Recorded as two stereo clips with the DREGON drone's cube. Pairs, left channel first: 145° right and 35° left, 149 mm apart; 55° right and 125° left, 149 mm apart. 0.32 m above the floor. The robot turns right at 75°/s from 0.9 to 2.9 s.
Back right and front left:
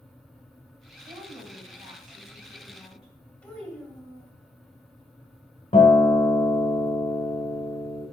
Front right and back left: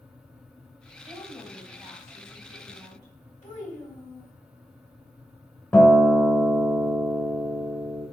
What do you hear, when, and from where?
1.1 s a woman speaking: 20° right, 2 m; by 3.1 s 120° left, 2 m
3.4 s a child speaking: 65° right, 1.3 m
5.7 s a guitar: 125° right, 0.9 m